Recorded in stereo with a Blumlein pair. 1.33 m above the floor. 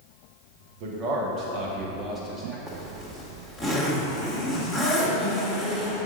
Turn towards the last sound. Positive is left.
turn(degrees=-10)